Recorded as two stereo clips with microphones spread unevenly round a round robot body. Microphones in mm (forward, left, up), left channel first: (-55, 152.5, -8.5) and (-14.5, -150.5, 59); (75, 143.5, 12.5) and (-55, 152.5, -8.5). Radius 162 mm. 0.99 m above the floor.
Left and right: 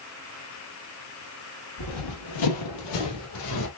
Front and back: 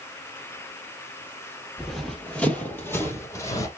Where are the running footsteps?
85° left, 1.8 m; by 3.7 s 55° left, 2.5 m.